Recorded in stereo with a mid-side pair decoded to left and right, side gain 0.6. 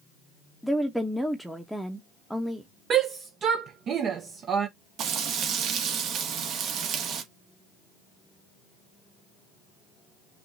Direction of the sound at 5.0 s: 60° right.